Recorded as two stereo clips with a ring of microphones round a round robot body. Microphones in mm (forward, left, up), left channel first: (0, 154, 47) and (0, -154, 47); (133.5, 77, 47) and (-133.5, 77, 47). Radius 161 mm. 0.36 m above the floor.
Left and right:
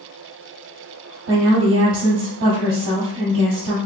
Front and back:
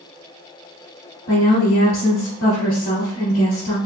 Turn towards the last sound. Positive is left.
turn(degrees=-45)